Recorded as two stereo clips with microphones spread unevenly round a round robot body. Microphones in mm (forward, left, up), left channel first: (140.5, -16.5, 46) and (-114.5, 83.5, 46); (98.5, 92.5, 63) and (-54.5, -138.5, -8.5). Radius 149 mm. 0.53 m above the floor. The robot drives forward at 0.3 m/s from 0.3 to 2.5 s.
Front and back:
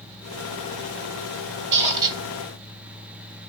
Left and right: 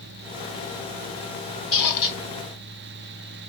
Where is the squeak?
115° left, 1.8 m.